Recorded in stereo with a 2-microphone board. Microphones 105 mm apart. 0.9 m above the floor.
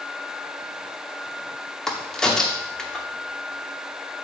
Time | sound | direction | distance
1.9 | a crack | 5° left (ahead or behind) | 0.9 m